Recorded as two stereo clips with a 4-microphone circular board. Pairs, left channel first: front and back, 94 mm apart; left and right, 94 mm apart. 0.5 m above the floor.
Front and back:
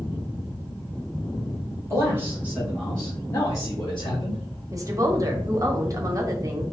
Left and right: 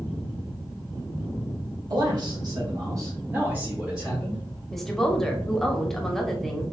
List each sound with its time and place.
1.9 s a man speaking: 125° right, 2.0 m; by 4.4 s 5° left, 2 m
4.7 s a woman speaking: 175° left, 0.9 m